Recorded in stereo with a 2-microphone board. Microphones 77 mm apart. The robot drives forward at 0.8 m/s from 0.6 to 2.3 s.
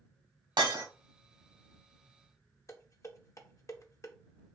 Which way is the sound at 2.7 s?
40° left (ahead or behind).